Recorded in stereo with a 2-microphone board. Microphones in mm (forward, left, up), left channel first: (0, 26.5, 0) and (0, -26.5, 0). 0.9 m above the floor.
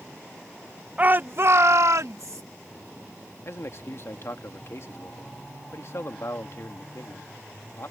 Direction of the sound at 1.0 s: 25° right (ahead or behind).